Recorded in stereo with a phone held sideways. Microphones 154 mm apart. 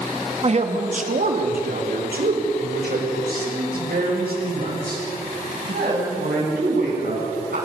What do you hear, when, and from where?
0.4 s a man speaking: 40° right (ahead or behind), 2.0 m; by 7.5 s 85° right, 11.5 m